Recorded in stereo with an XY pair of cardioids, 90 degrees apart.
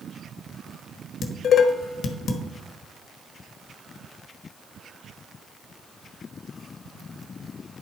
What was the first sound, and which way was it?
Dishes clattering, 70° left.